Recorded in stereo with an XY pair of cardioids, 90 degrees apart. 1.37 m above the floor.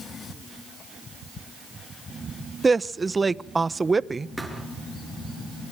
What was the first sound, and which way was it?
A woman speaking, 25° right.